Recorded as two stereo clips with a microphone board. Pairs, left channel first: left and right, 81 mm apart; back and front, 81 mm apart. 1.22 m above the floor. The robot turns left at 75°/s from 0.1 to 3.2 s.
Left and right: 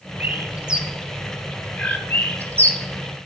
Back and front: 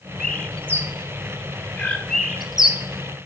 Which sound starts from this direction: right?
A bird, at 0.2 s.